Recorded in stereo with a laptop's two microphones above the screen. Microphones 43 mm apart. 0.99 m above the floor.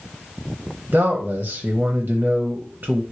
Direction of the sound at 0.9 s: 45° right (ahead or behind).